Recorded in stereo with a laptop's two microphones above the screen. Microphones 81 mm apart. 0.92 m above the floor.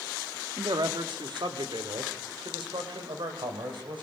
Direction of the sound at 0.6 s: 65° right (ahead or behind).